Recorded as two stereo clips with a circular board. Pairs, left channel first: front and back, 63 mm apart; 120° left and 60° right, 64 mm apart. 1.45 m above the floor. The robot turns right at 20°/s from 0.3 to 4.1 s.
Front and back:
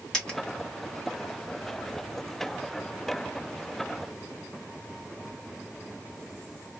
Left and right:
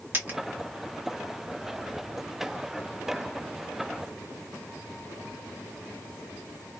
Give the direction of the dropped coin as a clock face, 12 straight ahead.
2 o'clock.